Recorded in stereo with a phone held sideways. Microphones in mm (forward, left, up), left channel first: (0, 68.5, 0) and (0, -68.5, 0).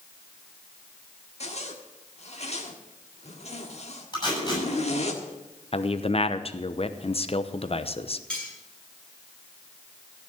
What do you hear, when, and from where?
1.4 s a zipper: 50° left (ahead or behind), 1.6 m
4.1 s tape being pulled: 30° left (ahead or behind), 8 m
5.7 s a man speaking: 45° left (ahead or behind), 0.8 m
8.3 s cutlery clinking: 10° left (ahead or behind), 6 m